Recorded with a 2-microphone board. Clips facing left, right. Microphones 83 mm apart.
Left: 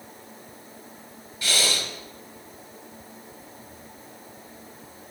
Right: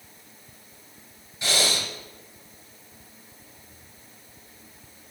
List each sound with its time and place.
1.4 s breathing: 25° right (ahead or behind), 2 m